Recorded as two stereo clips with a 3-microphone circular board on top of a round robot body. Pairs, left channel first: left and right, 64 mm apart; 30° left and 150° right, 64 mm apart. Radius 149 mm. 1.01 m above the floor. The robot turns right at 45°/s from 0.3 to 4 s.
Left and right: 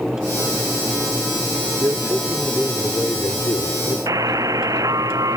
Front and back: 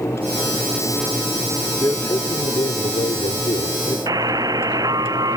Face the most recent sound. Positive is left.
turn(degrees=-125)